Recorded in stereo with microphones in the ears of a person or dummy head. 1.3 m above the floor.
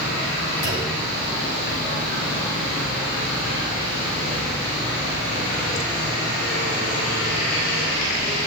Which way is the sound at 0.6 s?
65° left (ahead or behind).